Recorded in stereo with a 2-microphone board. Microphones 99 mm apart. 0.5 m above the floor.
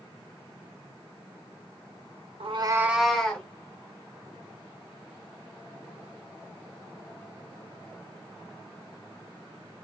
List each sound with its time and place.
2.4 s a cat meowing: 75° right (ahead or behind), 0.6 m; by 3.5 s 10° left (ahead or behind), 1.5 m